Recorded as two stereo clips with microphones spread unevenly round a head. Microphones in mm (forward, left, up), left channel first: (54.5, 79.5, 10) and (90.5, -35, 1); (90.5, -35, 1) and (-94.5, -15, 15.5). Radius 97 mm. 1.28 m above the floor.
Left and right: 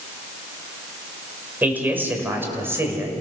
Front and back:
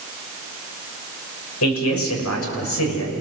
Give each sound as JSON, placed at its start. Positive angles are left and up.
{"t": 1.6, "sound": "a man speaking", "azimuth_deg": 5, "distance_m": 5.5}